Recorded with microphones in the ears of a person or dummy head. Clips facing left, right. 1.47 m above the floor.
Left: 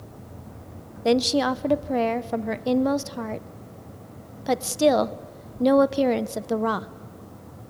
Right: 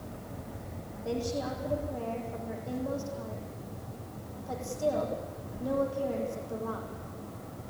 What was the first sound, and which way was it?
A woman speaking, 80° left.